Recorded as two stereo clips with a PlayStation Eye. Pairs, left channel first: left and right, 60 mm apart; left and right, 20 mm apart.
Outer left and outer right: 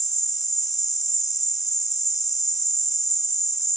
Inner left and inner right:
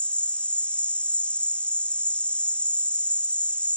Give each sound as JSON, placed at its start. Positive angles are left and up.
{"t": 0.0, "sound": "an insect", "side_deg": 75}